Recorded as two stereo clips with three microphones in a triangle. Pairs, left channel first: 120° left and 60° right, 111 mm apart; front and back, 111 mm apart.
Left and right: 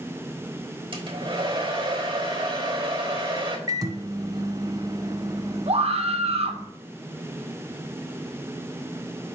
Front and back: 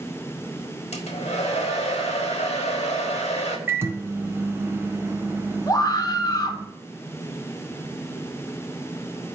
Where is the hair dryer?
15° right, 1.4 m.